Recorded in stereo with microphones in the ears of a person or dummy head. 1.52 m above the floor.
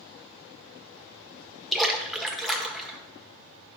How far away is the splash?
About 1.3 m.